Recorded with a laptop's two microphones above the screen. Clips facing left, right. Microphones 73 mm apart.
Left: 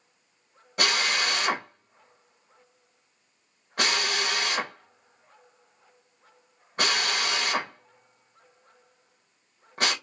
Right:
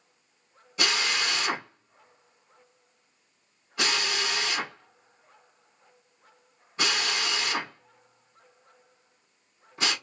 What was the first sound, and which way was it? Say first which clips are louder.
A drill: left 2 dB; 55° left (ahead or behind).